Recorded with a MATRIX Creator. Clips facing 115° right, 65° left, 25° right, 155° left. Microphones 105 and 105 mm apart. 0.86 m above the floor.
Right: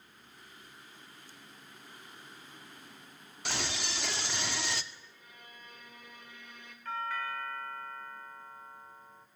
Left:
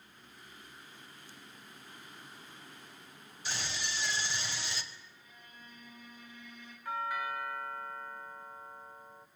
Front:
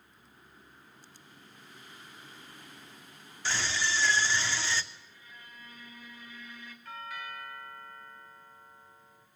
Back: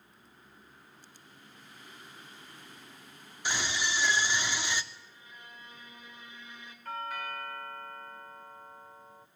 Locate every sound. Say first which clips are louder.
3.5 s a scream: right 3 dB, front 1 dB; 130° right, 2.5 m
4.9 s a violin: right 1 dB, back 1 dB; 135° right, 4.5 m
6.8 s a doorbell: left 1 dB, back 5 dB; 140° left, 1.6 m